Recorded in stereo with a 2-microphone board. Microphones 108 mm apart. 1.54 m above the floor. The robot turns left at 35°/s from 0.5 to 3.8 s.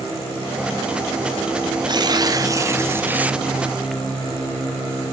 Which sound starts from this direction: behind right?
Tearing paper, at 1.9 s.